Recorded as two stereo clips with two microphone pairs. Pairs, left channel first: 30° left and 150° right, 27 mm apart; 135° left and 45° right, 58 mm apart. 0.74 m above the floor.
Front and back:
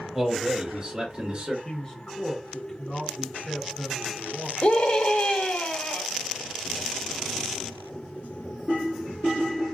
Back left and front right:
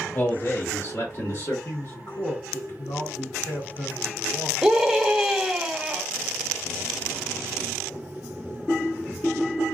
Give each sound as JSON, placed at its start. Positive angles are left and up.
{"t": 0.1, "sound": "a man speaking", "azimuth_deg": 135, "distance_m": 0.9}
{"t": 1.6, "sound": "a man speaking", "azimuth_deg": 95, "distance_m": 2.0}
{"t": 4.6, "sound": "a scream", "azimuth_deg": 35, "distance_m": 1.1}